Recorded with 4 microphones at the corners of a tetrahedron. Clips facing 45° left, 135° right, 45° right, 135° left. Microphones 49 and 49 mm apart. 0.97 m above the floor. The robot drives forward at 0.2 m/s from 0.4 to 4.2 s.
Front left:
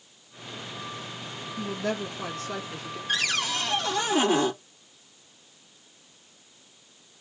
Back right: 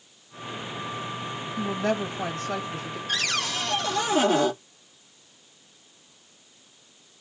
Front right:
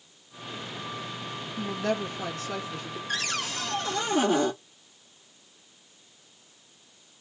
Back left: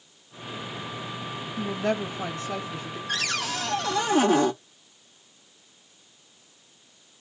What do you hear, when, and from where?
1.6 s a woman speaking: 155° right, 1.4 m; by 3.0 s 160° right, 1.7 m
3.1 s a cupboard door: 130° left, 1.1 m; by 4.5 s 135° left, 1.2 m